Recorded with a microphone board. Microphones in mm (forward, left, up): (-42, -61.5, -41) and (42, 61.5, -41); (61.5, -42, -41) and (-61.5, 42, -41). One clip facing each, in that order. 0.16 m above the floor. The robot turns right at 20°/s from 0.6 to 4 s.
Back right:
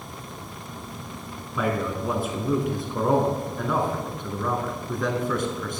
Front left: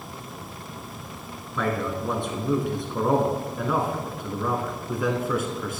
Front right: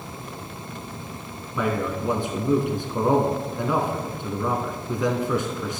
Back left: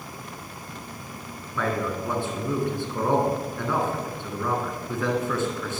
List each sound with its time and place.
1.6 s a man speaking: 60° right, 1.0 m; by 5.8 s 15° right, 1.0 m